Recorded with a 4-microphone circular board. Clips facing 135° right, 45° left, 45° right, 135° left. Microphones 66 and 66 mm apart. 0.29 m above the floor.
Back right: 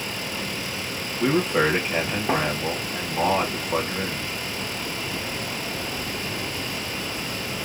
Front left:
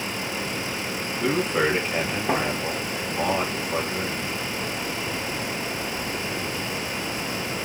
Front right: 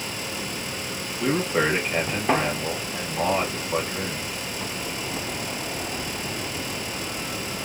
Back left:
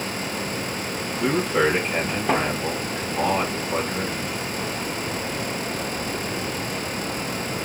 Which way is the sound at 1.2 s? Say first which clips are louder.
Back right 2 dB, back left 2 dB; 140° right.